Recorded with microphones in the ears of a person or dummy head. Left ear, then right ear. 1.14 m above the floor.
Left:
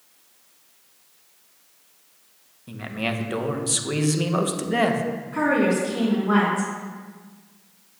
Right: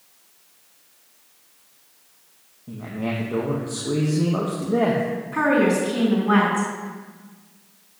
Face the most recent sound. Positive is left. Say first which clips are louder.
# right 2 dB
turn(degrees=-20)  # may be behind; listen again after turning